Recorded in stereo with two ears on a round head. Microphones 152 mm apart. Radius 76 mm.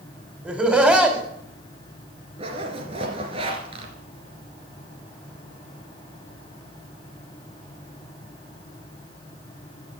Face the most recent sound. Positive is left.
turn(degrees=-35)  # may be behind; listen again after turning